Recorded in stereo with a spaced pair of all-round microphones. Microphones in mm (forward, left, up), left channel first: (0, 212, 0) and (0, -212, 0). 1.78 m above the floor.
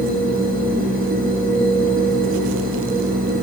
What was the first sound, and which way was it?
A machine running, 20° right (ahead or behind).